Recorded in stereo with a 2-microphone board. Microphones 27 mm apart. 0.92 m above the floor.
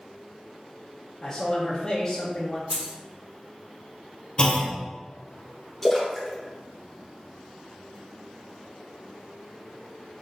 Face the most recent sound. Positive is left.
turn(degrees=0)  # may be behind; listen again after turning